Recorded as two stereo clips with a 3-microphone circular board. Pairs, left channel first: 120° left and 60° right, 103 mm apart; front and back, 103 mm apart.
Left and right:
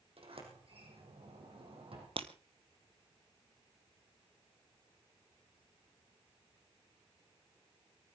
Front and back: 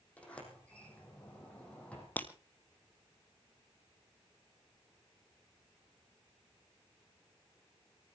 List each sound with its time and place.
0.2 s a sliding door: 75° right, 5 m
2.2 s breaking glass: 70° right, 1.3 m